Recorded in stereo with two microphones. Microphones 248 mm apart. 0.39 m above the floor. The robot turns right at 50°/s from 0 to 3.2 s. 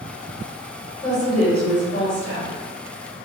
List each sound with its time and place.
1.0 s a woman speaking: 30° left, 1.2 m; by 2.5 s 105° left, 1.2 m